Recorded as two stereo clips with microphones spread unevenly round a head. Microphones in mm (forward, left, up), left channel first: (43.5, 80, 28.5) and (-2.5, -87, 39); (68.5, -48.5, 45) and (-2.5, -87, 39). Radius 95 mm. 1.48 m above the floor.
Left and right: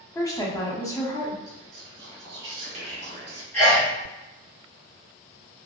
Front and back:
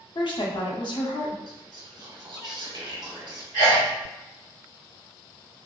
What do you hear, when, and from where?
0.1 s a woman speaking: 5° left, 0.9 m
1.5 s whispering: 130° right, 1.3 m
3.5 s a sneeze: 155° left, 1.2 m